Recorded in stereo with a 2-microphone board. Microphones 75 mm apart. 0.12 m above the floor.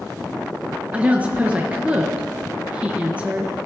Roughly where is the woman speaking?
Centre.